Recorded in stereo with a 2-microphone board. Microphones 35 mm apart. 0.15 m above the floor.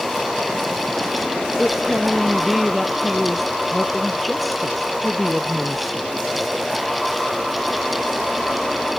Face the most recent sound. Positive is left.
turn(degrees=0)  # may be behind; listen again after turning